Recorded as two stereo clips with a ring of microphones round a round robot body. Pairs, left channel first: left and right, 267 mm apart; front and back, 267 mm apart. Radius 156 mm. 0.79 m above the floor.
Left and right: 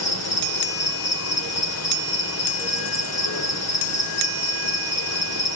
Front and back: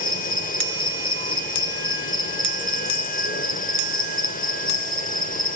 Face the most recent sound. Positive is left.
turn(degrees=60)